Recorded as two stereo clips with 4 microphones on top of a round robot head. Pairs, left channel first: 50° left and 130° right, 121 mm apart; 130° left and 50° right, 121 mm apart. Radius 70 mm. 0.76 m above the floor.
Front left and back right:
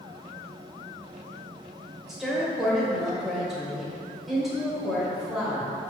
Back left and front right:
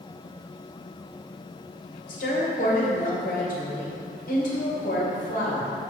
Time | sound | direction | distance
2.1 | a woman speaking | 140° left | 2.5 m